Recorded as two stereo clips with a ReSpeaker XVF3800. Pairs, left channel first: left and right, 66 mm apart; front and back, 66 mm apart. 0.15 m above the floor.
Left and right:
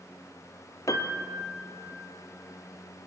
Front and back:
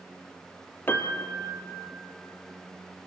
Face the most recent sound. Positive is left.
turn(degrees=55)